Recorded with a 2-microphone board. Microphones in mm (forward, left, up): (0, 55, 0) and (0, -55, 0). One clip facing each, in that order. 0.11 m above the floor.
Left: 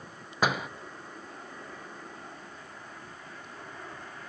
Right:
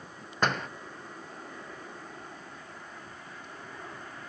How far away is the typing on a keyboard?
I don't hear typing on a keyboard.